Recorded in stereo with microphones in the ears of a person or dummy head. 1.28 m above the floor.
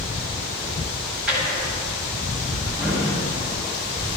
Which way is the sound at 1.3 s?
Centre (ahead or behind).